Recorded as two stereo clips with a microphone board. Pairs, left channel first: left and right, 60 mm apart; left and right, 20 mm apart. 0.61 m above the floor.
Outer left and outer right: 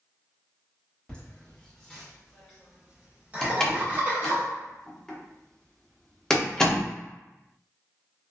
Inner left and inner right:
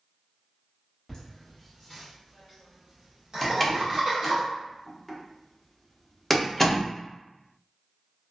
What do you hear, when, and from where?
1.1 s laughter: 20° left (ahead or behind), 1.3 m; by 4.4 s 40° right (ahead or behind), 1.3 m
3.4 s a door slam: 10° left (ahead or behind), 0.5 m